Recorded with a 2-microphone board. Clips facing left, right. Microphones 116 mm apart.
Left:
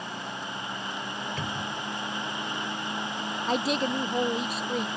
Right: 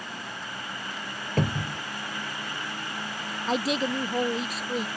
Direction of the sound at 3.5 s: Centre (ahead or behind).